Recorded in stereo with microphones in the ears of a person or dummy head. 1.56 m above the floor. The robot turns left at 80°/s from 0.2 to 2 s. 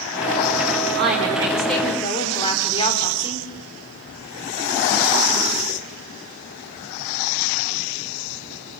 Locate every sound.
0.9 s a woman speaking: 125° right, 4 m; by 3.5 s 150° left, 4 m